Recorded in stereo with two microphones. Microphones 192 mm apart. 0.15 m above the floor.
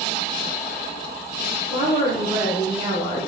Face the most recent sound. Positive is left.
turn(degrees=-25)  # may be behind; listen again after turning